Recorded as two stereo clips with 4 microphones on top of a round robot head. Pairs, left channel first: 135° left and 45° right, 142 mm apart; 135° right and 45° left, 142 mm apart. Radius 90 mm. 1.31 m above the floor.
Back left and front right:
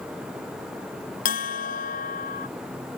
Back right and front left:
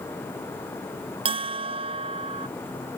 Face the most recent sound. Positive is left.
turn(degrees=100)